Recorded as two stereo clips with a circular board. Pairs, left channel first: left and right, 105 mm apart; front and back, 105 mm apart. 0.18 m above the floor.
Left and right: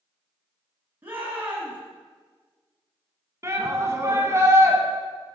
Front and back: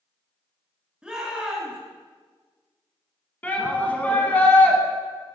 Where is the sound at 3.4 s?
60° right, 1.2 m.